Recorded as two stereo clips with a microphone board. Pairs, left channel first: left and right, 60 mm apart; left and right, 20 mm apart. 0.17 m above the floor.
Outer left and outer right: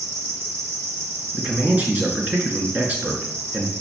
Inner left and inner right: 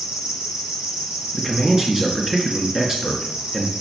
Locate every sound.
0.0 s an insect: 45° right (ahead or behind), 1.8 m
1.3 s a man speaking: 25° right (ahead or behind), 2 m